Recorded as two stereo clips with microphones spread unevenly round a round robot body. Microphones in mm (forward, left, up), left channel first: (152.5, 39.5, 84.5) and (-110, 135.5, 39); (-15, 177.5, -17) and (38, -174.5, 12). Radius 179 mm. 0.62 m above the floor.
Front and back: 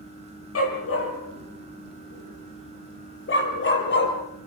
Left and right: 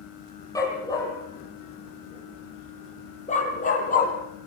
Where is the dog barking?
15° left, 7 m; by 4.1 s 30° left, 6 m.